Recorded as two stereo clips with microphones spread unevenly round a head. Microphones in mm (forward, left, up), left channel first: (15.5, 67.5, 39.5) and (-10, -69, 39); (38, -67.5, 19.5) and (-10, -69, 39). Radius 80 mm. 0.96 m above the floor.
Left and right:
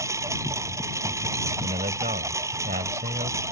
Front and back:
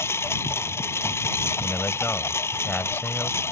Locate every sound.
0.0 s a lawn mower: 30° right
1.6 s a man speaking: 60° right